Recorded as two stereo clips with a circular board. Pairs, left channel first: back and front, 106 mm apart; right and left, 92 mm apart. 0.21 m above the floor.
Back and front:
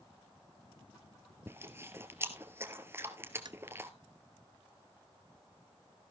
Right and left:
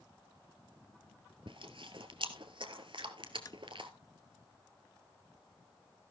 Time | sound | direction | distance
1.5 | chewing | 65° left | 1.6 m
3.5 | tapping | 45° right | 0.8 m